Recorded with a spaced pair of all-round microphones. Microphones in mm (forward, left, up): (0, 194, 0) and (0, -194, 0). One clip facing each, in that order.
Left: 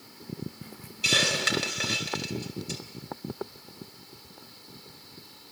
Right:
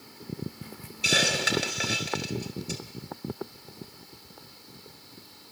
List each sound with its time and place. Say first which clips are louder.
1.0 s a hiss: right 1 dB; 10° left (ahead or behind), 3 m